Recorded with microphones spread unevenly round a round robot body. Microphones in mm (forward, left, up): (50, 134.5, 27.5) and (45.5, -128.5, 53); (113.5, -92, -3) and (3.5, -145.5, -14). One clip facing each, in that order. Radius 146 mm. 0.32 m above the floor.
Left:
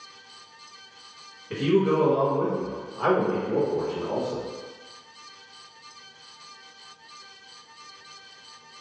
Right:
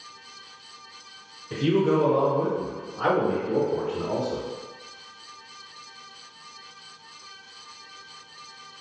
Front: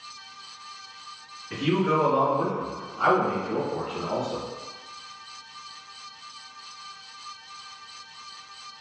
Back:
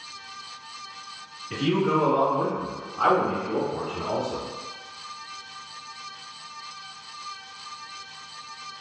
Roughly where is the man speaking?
Behind left.